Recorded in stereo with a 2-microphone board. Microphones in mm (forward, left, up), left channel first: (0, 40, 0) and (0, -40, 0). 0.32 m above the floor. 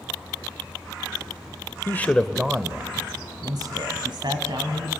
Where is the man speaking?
25° left (ahead or behind), 0.9 m; by 4.9 s 70° right (ahead or behind), 2.5 m.